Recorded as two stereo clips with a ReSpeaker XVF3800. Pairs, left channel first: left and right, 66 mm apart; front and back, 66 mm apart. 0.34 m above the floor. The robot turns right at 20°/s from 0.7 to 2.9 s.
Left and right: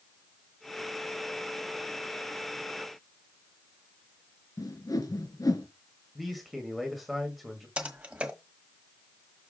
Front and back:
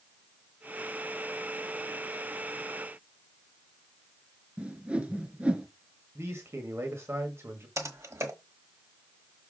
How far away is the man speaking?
About 1.9 m.